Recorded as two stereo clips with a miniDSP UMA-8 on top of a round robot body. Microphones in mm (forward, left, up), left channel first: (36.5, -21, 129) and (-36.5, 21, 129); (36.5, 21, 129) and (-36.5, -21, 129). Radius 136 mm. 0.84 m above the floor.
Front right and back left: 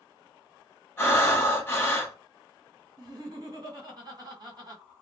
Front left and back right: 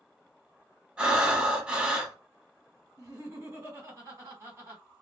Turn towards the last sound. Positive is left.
turn(degrees=165)